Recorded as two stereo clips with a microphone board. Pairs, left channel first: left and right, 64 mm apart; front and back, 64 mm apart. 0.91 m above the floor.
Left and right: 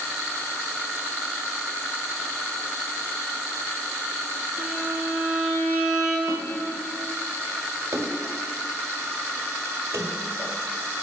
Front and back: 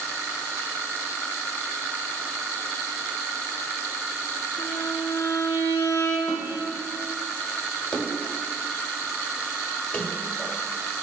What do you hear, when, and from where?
4.6 s a violin: 15° right, 3.5 m
6.3 s a snare drum: 5° left, 4.5 m
7.9 s a splash: 70° right, 1.3 m